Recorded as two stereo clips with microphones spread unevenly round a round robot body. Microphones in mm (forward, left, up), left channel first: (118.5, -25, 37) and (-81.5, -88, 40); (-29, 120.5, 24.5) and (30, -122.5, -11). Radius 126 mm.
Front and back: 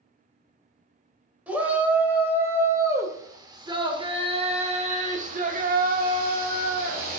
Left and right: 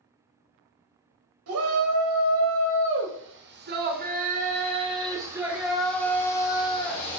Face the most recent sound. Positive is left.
turn(degrees=165)